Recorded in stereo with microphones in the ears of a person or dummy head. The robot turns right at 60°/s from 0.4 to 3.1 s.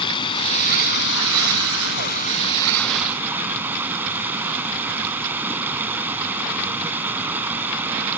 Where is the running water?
30° left; by 8.2 s 170° right.